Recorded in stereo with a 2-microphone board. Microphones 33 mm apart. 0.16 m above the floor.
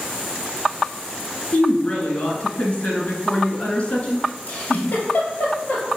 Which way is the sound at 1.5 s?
35° left (ahead or behind).